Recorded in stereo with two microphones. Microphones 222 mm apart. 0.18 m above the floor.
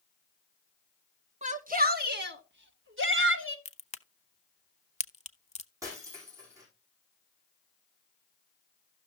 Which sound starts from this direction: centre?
Breaking glass, at 5.8 s.